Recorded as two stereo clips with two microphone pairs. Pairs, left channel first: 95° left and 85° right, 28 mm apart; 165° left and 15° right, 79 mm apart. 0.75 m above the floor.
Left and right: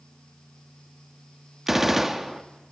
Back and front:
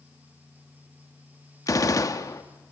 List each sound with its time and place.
1.7 s a gunshot: 160° right, 1.1 m